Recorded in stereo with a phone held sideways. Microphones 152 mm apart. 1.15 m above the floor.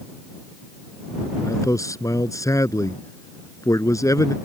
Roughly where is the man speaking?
Left.